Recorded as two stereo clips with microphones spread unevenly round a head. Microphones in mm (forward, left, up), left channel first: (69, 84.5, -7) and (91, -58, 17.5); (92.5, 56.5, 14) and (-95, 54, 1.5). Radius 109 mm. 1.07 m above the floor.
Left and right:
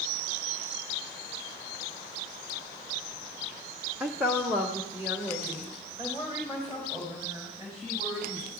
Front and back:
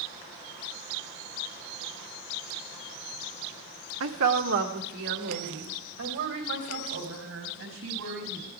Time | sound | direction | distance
4.0 | a woman speaking | 165° right | 1.2 m